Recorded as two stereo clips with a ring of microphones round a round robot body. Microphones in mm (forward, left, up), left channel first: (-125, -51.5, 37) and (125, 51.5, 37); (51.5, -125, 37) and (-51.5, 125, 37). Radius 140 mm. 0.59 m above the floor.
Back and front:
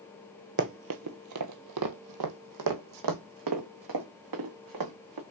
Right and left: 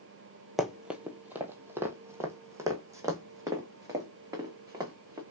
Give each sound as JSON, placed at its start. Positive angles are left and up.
{"t": 0.6, "sound": "running footsteps", "azimuth_deg": 25, "distance_m": 0.7}